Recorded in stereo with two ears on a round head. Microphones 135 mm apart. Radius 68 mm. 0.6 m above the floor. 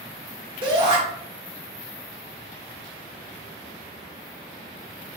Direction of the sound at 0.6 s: 35° right (ahead or behind).